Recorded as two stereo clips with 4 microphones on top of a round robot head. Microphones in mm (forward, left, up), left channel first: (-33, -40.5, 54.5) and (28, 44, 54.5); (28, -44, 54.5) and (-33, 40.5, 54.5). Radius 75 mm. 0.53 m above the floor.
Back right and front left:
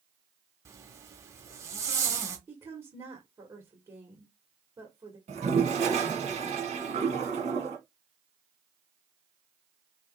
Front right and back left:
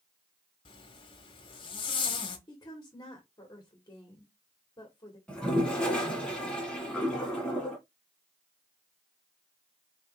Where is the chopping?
No chopping in this recording.